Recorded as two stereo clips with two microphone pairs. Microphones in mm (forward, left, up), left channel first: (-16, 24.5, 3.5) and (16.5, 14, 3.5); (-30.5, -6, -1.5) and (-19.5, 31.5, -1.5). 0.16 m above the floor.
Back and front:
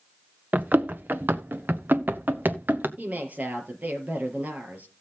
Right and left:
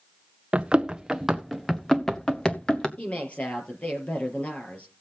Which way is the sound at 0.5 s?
10° left.